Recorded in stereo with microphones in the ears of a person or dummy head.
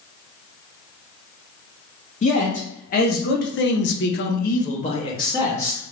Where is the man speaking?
35° left (ahead or behind), 1.3 m; by 5.8 s 20° left (ahead or behind), 1.2 m.